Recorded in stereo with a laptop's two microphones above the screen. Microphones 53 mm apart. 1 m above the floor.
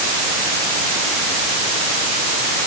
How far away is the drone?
No drone in this recording.